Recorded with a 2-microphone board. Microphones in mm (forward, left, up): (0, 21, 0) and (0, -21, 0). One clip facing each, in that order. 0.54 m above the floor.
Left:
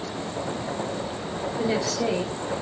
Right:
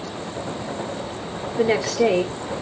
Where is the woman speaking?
50° right (ahead or behind), 1.5 m.